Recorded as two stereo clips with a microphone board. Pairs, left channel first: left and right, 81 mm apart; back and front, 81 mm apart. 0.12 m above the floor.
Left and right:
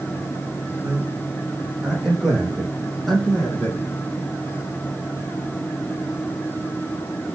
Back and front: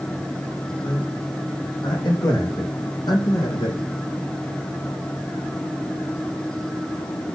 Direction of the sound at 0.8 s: 160° right.